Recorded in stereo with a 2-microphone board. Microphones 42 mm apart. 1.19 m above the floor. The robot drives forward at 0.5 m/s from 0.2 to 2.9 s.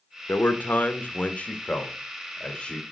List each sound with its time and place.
0.3 s a man speaking: 50° left (ahead or behind), 1.0 m; by 2.8 s 20° left (ahead or behind), 2 m